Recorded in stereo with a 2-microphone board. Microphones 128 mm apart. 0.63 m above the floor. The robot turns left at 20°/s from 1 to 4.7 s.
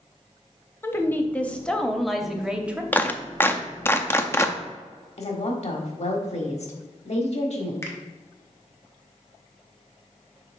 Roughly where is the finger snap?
Centre.